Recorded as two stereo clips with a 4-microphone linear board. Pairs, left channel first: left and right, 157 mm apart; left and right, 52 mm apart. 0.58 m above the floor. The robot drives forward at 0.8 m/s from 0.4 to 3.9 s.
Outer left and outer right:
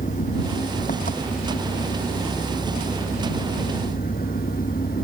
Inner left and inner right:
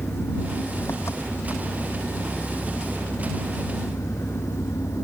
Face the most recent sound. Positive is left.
turn(degrees=60)  # may be behind; listen again after turning